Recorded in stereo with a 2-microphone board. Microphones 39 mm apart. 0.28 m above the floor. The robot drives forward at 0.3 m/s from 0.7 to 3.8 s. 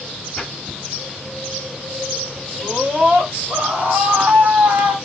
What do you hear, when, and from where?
0.4 s a splash: 10° left (ahead or behind), 1.9 m
2.6 s a scream: 45° right (ahead or behind), 2.0 m; by 5.0 s 40° right (ahead or behind), 2 m